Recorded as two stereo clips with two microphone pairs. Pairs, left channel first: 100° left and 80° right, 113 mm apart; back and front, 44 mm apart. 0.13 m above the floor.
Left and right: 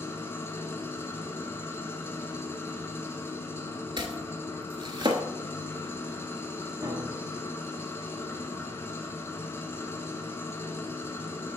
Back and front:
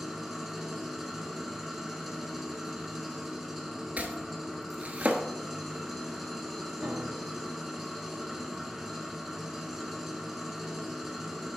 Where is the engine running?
80° left, 1.0 m.